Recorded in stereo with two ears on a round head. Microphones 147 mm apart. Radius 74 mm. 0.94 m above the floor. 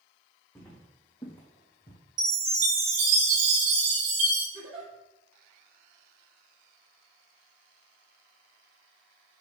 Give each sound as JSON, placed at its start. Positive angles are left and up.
{"t": 0.6, "sound": "footsteps", "side_deg": 15, "distance_m": 3.0}
{"t": 2.2, "sound": "a chime", "side_deg": -50, "distance_m": 4.0}
{"t": 4.5, "sound": "a giggle", "side_deg": -35, "distance_m": 4.0}